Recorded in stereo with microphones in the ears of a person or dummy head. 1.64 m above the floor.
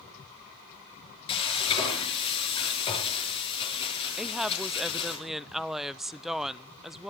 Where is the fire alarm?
No fire alarm in this recording.